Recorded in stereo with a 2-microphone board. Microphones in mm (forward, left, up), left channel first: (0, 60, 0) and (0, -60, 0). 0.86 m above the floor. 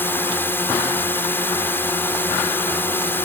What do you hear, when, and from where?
0.0 s a drone: 20° left (ahead or behind)